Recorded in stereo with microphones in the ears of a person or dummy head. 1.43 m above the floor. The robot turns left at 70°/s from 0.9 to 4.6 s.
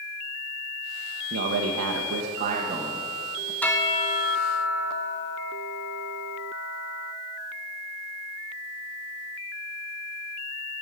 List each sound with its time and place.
1.3 s a man speaking: 55° right, 0.9 m; by 3.5 s 150° left, 0.9 m
3.6 s a bell: 170° left, 0.6 m; by 7.1 s 100° left, 0.6 m